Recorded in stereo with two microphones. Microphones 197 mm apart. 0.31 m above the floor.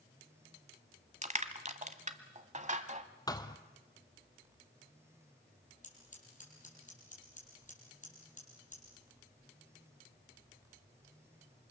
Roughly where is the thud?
Centre.